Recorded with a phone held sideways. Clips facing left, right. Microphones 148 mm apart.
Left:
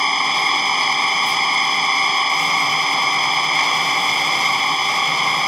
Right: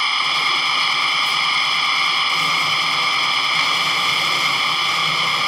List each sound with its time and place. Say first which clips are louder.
0.0 s an engine running: left 4 dB; 45° left (ahead or behind)